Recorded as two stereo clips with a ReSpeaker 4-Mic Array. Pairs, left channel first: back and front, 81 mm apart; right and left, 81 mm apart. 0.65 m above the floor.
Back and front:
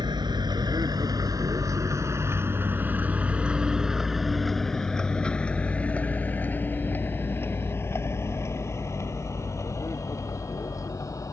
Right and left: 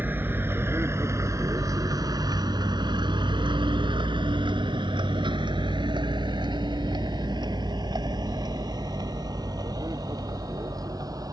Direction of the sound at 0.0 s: 25° left.